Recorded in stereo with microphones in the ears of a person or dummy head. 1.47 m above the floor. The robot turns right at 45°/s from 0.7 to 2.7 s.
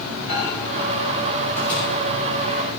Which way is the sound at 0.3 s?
55° left (ahead or behind).